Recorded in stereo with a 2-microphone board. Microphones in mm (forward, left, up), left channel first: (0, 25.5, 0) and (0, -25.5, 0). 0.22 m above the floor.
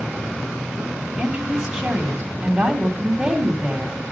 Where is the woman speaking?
15° right (ahead or behind), 1.9 m.